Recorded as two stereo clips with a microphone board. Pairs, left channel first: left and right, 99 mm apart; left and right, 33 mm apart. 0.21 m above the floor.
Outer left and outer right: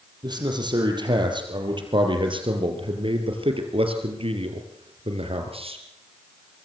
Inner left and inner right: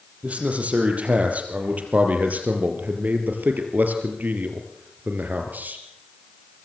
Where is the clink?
No clink in this recording.